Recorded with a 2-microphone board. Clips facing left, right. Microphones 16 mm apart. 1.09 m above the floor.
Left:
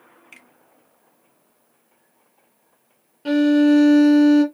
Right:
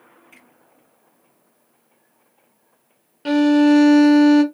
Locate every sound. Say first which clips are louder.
0.3 s a finger snap: left 5 dB; 40° left (ahead or behind), 1.6 m
3.2 s a violin: right 1 dB; 40° right (ahead or behind), 0.7 m